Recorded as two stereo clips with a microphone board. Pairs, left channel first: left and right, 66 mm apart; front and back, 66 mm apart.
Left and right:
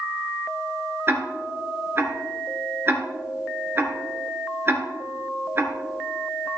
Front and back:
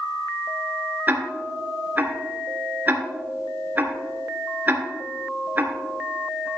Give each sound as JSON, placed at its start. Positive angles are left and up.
{"t": 1.1, "sound": "ticking", "azimuth_deg": -130, "distance_m": 2.5}